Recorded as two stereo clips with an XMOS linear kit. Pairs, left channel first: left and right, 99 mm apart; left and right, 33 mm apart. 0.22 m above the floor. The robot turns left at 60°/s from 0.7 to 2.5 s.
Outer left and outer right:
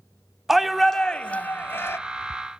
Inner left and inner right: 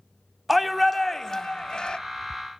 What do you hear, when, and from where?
0.5 s a shout: centre (ahead or behind), 1.0 m; by 2.0 s 25° left (ahead or behind), 1.0 m